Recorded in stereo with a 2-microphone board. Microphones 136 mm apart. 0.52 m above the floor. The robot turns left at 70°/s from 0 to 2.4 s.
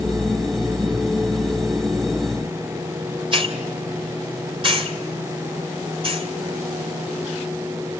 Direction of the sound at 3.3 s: 40° right (ahead or behind).